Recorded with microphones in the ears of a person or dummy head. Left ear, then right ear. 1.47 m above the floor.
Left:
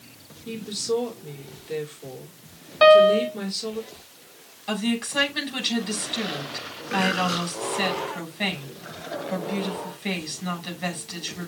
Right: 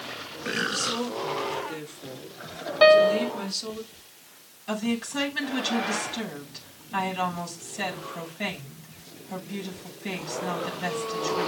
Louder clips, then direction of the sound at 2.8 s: Left 3 dB; 5° right (ahead or behind).